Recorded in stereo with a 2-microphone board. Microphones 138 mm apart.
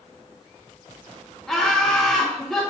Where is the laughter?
5° left (ahead or behind), 1.2 m.